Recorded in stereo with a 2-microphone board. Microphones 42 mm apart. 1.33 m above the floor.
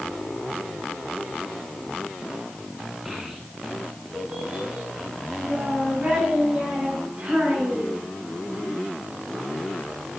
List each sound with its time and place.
3.0 s a child speaking: 15° right (ahead or behind), 1.6 m; by 8.0 s 40° right (ahead or behind), 6 m